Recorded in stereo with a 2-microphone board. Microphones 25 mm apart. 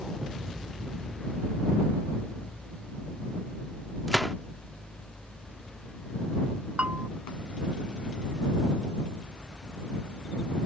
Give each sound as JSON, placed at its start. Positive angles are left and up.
{"t": 4.1, "sound": "a gunshot", "side_deg": 5}
{"t": 6.8, "sound": "a bell", "side_deg": -75}